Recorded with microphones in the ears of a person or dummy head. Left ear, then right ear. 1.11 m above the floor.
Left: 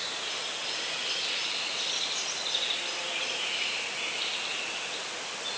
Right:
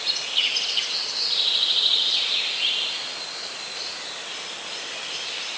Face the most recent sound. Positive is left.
No sound to turn to.